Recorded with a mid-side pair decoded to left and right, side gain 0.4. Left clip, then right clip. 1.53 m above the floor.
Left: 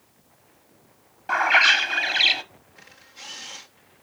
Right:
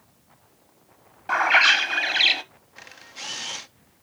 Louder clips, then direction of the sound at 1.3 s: Even; 10° right.